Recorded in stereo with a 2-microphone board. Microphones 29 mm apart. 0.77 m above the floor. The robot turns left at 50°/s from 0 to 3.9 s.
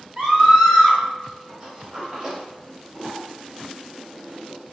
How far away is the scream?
About 1.7 m.